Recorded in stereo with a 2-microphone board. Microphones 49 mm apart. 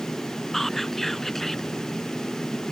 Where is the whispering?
5° left (ahead or behind).